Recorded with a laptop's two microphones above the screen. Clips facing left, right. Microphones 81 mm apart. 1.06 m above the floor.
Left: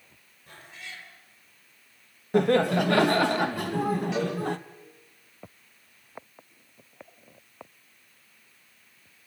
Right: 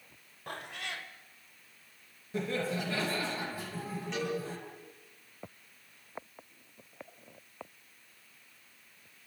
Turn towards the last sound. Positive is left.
turn(degrees=5)  # may be behind; listen again after turning